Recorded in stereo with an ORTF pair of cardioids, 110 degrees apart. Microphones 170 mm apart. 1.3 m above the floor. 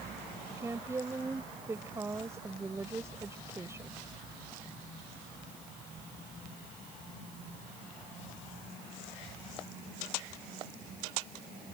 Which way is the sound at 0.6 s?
15° right.